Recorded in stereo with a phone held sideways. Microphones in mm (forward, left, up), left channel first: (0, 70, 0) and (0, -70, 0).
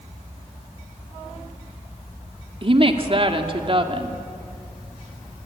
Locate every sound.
2.6 s a woman speaking: 40° right (ahead or behind), 2 m